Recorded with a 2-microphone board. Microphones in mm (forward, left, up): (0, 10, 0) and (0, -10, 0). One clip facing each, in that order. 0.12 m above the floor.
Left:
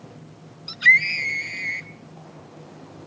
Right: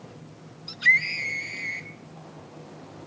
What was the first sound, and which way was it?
A scream, 20° left (ahead or behind).